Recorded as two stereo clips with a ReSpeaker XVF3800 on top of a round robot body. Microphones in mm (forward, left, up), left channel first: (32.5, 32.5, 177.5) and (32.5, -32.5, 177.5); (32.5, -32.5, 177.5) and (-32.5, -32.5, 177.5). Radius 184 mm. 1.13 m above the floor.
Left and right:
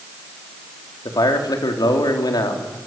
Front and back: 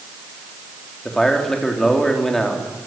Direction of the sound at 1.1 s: 85° left.